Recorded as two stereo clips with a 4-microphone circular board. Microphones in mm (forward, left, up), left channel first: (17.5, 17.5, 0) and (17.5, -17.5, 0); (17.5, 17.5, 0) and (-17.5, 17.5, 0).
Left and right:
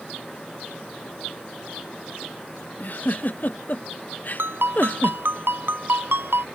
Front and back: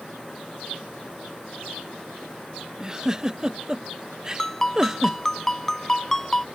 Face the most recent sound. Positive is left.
turn(degrees=-75)